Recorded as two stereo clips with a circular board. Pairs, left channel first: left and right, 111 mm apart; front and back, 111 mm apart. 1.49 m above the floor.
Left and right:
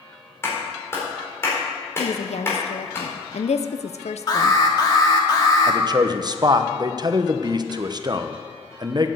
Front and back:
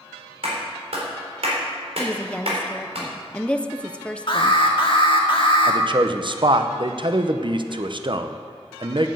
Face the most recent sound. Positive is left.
turn(degrees=-140)